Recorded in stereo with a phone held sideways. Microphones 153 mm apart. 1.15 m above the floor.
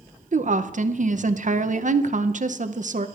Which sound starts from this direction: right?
A woman speaking, at 0.3 s.